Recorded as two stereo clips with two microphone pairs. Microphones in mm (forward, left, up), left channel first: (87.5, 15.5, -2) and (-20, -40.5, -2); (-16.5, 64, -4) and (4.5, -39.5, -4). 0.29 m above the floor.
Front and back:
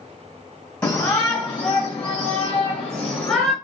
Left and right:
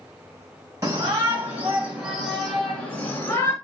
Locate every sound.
0.8 s a shout: 50° right, 1.8 m; by 3.5 s 105° left, 1.5 m